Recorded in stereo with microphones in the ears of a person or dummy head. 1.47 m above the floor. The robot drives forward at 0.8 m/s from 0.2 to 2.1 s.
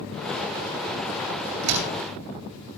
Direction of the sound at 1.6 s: 90° right.